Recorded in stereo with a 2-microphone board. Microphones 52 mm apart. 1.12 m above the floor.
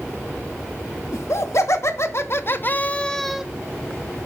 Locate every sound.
1.1 s laughter: 70° left (ahead or behind), 1.4 m; by 3.5 s 10° right (ahead or behind), 0.5 m